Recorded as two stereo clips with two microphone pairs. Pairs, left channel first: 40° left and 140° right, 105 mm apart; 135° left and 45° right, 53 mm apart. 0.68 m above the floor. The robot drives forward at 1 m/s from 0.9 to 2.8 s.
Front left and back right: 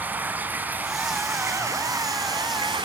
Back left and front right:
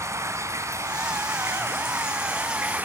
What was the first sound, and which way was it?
Running water, 70° right.